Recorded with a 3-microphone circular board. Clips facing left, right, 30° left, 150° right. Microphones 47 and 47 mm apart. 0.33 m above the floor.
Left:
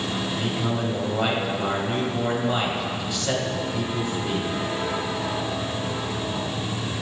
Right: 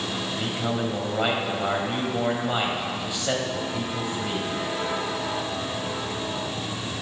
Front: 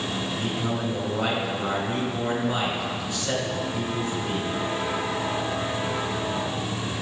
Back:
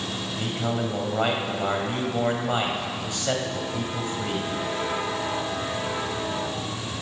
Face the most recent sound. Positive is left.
turn(degrees=-165)